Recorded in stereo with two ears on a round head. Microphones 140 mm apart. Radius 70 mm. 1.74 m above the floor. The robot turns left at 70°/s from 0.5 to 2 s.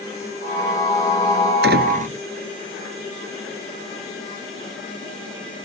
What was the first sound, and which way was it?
A door slam, 75° right (ahead or behind).